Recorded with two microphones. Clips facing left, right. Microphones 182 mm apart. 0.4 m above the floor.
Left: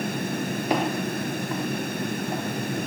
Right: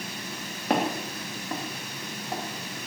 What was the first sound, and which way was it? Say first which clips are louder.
Footsteps: even; 55° right (ahead or behind).